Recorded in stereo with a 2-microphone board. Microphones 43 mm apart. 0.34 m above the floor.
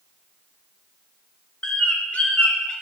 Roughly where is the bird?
Left.